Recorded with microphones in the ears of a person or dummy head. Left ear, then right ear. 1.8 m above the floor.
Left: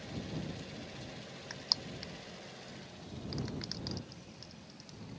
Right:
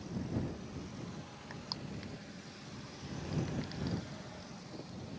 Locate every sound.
1.5 s crushing: 25° left (ahead or behind)